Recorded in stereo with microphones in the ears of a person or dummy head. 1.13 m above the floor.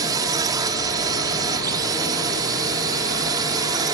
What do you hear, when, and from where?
0.0 s a drone: 20° right (ahead or behind)